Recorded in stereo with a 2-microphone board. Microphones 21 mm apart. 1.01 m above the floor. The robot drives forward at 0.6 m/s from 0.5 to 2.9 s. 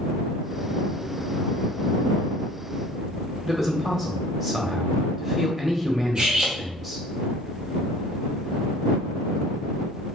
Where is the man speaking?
Centre (ahead or behind), 0.8 m.